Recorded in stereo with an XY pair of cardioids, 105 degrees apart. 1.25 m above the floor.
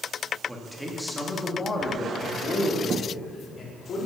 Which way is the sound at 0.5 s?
Straight ahead.